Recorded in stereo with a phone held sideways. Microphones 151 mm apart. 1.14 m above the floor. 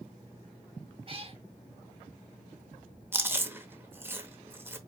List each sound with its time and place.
1.1 s a cat meowing: 40° right (ahead or behind), 1.6 m
3.1 s chewing: 15° right (ahead or behind), 0.8 m